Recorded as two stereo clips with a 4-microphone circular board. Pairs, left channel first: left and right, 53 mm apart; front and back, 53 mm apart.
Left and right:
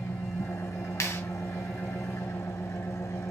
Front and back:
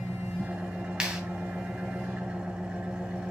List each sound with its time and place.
0.0 s an engine running: 110° left, 2.5 m
1.0 s a clap: 105° left, 2.5 m